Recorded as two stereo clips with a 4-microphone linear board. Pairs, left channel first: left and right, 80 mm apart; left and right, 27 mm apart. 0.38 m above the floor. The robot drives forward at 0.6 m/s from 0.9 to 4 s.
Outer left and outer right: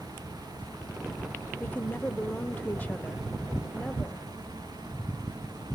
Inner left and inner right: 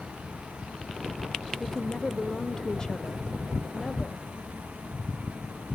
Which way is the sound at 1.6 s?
20° left (ahead or behind).